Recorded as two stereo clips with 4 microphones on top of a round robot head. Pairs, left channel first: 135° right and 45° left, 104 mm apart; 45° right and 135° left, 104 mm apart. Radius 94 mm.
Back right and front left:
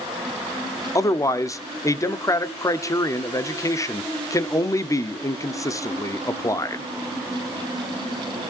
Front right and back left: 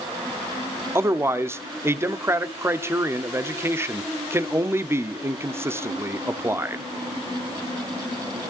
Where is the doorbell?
I don't hear a doorbell.